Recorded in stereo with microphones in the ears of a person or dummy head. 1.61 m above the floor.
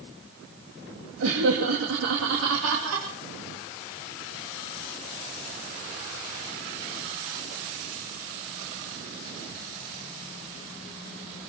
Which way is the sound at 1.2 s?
80° right.